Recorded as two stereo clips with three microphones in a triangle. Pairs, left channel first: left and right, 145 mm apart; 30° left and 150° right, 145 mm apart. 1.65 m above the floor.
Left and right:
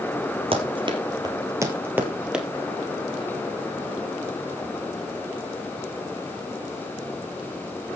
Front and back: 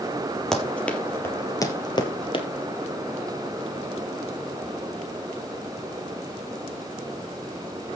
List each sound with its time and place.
0.5 s running footsteps: 55° right, 3 m; by 2.5 s 5° right, 2.5 m